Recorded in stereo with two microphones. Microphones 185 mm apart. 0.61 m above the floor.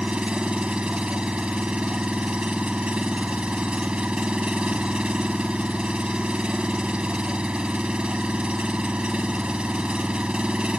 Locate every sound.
0.0 s an engine running: 5° right (ahead or behind)